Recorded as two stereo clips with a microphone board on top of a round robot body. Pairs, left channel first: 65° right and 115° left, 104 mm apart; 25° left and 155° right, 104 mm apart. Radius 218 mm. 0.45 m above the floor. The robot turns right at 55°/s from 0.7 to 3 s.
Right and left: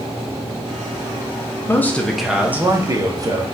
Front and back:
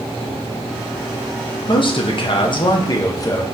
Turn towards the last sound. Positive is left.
turn(degrees=70)